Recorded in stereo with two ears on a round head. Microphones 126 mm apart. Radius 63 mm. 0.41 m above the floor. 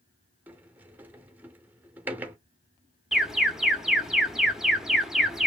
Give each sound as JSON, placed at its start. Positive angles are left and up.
{"t": 0.5, "sound": "a sliding door", "side_deg": -15, "distance_m": 0.5}
{"t": 3.1, "sound": "an alarm", "side_deg": -5, "distance_m": 0.7}